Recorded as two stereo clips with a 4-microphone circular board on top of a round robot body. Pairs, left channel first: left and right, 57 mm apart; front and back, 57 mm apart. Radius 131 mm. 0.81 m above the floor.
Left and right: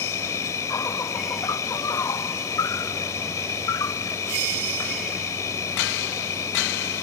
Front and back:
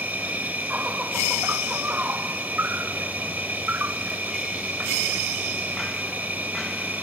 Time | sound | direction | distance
0.0 | an insect | 120° left | ?